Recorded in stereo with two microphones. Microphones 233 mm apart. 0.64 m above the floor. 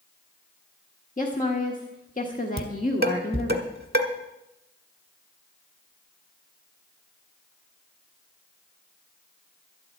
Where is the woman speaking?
35° left (ahead or behind), 1.3 m.